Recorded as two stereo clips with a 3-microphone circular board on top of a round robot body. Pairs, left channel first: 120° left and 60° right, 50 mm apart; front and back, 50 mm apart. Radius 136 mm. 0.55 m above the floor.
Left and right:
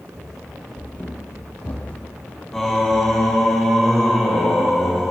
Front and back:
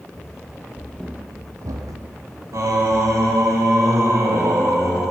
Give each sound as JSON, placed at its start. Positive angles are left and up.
{"t": 0.1, "sound": "running footsteps", "azimuth_deg": 30, "distance_m": 1.6}
{"t": 2.5, "sound": "singing", "azimuth_deg": -155, "distance_m": 2.0}